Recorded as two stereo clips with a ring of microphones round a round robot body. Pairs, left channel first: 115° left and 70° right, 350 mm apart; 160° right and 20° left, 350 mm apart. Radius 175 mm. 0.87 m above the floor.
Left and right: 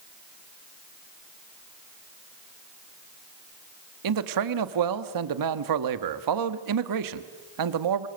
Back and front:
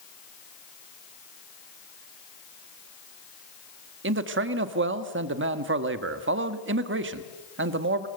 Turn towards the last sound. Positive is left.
turn(degrees=-35)